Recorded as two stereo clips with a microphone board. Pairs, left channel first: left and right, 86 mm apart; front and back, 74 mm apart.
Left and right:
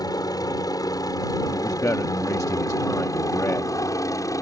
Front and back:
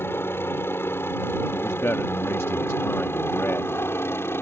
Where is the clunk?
No clunk in this recording.